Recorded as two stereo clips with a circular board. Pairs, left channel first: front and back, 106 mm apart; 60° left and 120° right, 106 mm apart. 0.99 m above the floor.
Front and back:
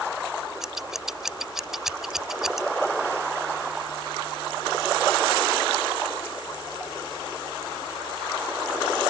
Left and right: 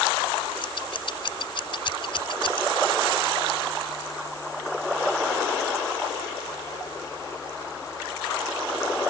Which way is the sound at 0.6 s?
95° left.